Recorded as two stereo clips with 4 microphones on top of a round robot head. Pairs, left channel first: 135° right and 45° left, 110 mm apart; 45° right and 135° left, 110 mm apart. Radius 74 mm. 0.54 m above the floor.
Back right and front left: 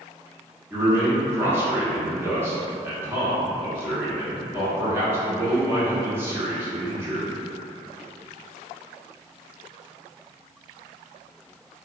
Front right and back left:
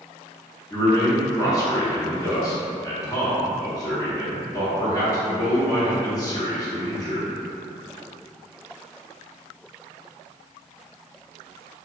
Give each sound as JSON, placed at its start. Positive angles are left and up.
{"t": 0.7, "sound": "a man speaking", "azimuth_deg": -10, "distance_m": 1.0}